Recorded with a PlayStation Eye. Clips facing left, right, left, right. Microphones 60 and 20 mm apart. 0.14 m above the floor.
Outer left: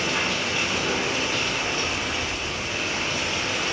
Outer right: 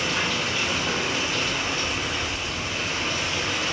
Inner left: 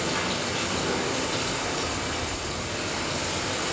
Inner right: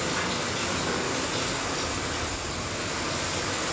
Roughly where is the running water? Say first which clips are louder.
Even, inner left 1 dB; left.